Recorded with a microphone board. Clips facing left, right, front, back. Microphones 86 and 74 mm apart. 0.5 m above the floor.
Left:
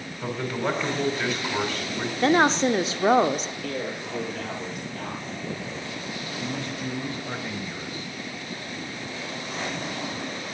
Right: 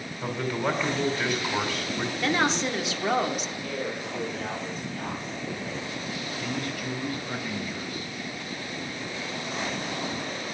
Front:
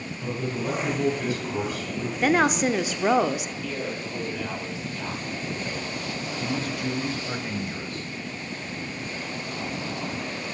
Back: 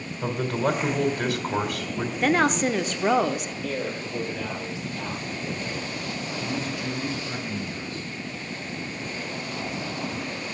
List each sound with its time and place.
0.2 s a man speaking: 170° left, 2.5 m
2.2 s a woman speaking: 80° left, 0.8 m
3.6 s a man speaking: 110° left, 9 m
6.4 s a man speaking: 30° left, 3 m